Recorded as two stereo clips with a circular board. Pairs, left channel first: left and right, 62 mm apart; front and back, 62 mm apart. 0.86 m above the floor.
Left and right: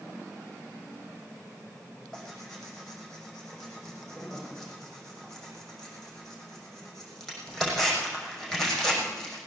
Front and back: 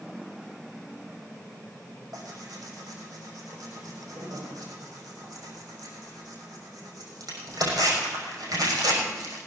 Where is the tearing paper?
175° left, 6 m.